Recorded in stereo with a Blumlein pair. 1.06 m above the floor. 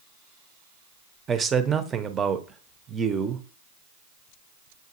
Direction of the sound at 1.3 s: 20° right.